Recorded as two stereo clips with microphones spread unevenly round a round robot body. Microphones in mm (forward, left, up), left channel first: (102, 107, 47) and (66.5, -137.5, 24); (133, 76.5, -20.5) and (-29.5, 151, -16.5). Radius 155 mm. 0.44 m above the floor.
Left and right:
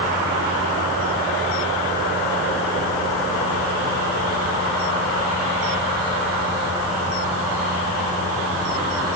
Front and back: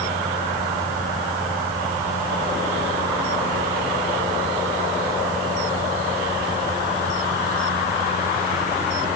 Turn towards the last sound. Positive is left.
No sound to turn to.